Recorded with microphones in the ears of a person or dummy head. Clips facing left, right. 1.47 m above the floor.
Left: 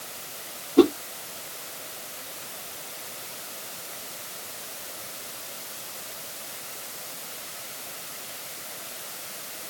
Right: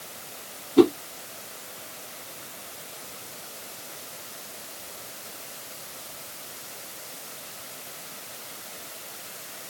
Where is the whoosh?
45° right (ahead or behind), 1.8 m.